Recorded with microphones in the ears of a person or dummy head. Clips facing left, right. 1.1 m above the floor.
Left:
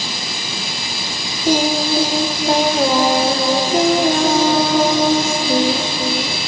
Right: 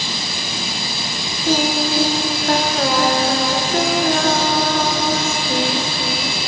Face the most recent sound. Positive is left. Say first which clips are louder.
# left 2 dB
turn(degrees=10)  # may be behind; listen again after turning